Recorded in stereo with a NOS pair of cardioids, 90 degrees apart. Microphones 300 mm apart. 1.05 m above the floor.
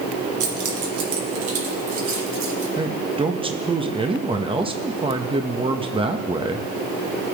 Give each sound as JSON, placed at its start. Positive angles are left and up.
{"t": 0.4, "sound": "keys jangling", "azimuth_deg": -70, "distance_m": 2.5}
{"t": 2.8, "sound": "a man speaking", "azimuth_deg": -15, "distance_m": 1.0}